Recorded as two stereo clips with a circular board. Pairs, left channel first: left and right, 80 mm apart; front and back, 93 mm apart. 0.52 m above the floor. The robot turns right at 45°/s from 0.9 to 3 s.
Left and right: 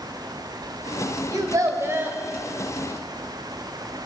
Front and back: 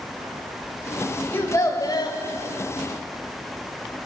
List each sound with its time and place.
1.3 s a child speaking: 65° right, 2 m; by 2.2 s 25° right, 2 m